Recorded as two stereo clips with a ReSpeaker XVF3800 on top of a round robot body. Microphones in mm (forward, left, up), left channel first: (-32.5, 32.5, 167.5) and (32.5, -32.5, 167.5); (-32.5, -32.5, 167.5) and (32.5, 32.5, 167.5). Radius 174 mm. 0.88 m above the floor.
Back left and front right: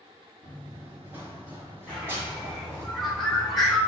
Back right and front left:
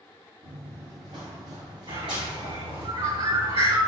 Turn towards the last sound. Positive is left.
turn(degrees=45)